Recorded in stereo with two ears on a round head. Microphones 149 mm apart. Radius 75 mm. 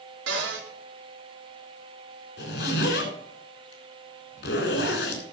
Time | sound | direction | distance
0.3 | a cupboard door | 75° right (ahead or behind) | 4.5 m
2.4 | a zipper | 70° left (ahead or behind) | 3 m